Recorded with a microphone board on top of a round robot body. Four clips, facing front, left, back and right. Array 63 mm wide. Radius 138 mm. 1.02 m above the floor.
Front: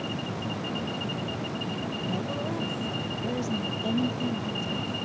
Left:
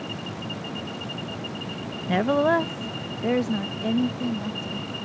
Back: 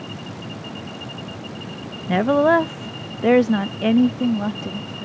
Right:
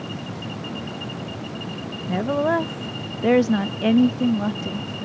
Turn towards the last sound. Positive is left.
turn(degrees=-140)